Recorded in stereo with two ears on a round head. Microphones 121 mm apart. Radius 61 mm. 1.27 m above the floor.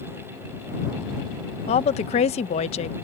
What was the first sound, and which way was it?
A woman speaking, 50° left (ahead or behind).